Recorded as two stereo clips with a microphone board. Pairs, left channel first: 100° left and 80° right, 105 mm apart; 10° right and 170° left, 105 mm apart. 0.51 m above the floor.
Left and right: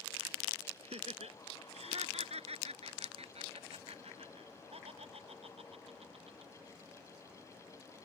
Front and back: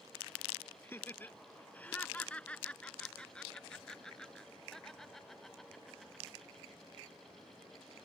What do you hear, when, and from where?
0.8 s laughter: 80° right; by 6.5 s 100° right